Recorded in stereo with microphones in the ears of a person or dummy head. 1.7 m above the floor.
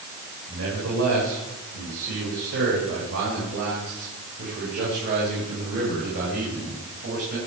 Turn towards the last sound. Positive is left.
turn(degrees=-55)  # may be behind; listen again after turning